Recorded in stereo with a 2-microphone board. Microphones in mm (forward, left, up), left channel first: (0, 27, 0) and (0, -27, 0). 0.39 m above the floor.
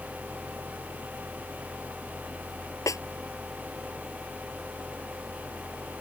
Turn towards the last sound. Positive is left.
turn(degrees=80)